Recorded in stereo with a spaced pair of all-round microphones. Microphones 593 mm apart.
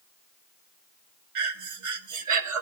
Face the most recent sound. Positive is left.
turn(degrees=-60)  # may be behind; listen again after turning